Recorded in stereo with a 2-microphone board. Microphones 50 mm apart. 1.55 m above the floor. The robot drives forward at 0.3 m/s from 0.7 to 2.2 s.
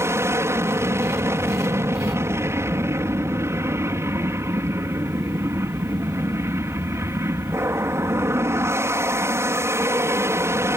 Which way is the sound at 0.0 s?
65° right (ahead or behind).